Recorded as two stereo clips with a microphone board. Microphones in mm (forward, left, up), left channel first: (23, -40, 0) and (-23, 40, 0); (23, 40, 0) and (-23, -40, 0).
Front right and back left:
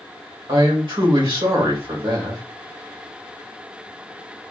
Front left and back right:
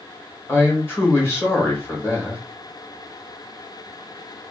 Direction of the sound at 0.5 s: 120° left.